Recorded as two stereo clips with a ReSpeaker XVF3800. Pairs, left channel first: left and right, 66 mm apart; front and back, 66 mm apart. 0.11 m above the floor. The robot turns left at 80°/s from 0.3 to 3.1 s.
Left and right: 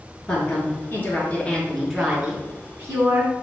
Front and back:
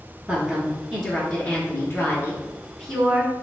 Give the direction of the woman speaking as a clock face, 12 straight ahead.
7 o'clock.